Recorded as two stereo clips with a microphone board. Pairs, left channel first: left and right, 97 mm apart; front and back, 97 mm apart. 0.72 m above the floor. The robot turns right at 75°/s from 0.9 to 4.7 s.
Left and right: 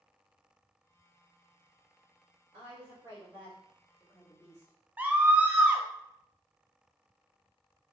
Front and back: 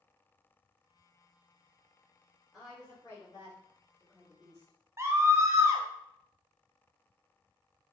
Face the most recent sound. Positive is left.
turn(degrees=-150)